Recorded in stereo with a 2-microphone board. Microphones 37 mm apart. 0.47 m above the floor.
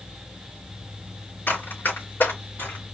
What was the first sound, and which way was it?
Running footsteps, 75° left (ahead or behind).